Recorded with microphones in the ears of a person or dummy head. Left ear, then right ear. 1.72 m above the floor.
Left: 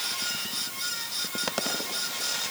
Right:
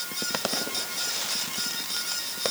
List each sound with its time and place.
Only background noise.